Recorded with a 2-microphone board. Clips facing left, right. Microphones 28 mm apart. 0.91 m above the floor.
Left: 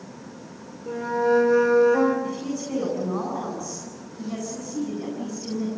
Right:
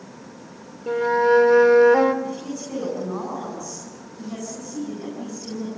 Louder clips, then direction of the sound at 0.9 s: Right 4 dB; 55° right (ahead or behind).